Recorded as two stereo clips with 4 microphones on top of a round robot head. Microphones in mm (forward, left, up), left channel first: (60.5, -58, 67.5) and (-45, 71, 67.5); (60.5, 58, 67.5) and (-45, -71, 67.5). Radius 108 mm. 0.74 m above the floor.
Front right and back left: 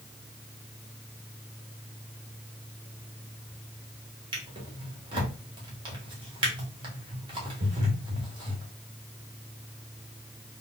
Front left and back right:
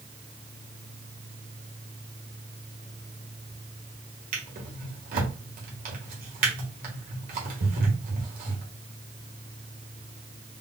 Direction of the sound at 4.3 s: 165° right.